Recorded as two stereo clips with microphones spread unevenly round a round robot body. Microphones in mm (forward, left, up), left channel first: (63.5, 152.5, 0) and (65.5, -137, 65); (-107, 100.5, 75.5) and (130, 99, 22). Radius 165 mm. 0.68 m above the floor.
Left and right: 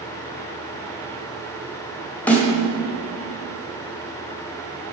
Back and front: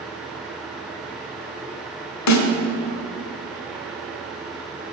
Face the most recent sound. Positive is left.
turn(degrees=175)